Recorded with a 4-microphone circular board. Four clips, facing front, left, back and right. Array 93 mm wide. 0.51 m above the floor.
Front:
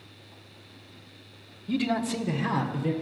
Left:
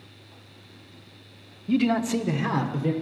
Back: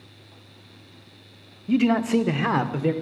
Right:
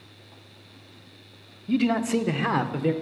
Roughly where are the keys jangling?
I don't hear keys jangling.